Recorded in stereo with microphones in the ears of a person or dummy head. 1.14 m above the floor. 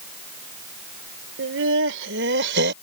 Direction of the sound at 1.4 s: 75° right (ahead or behind).